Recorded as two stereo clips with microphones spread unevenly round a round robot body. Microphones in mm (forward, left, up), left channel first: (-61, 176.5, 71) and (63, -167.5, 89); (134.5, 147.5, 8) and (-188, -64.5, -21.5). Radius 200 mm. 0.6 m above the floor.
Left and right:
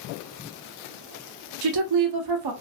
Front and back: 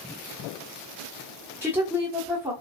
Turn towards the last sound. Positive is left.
turn(degrees=-65)